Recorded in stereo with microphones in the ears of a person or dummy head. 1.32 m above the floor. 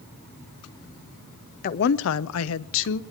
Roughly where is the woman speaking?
Left.